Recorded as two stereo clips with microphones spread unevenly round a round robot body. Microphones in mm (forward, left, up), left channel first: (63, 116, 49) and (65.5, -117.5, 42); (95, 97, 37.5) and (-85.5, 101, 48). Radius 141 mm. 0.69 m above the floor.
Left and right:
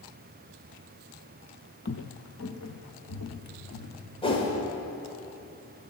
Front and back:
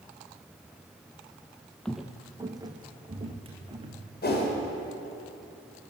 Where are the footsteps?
85° left, 0.9 m; by 4.0 s 125° left, 3 m.